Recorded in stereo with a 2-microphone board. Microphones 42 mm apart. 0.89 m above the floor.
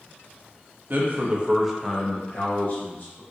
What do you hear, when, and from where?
0.9 s a man speaking: 50° right (ahead or behind), 0.7 m; by 3.2 s 50° left (ahead or behind), 1.1 m